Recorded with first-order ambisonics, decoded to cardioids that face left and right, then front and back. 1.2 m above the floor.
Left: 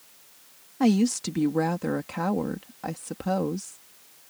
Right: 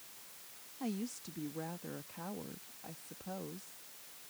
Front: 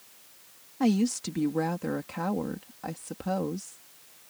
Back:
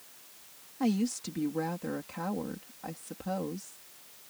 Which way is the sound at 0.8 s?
70° left.